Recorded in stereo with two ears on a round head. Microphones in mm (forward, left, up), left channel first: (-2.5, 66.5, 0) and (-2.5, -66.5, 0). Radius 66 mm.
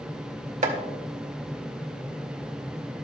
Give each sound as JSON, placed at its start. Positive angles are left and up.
{"t": 0.6, "sound": "chopping", "side_deg": -50, "distance_m": 1.9}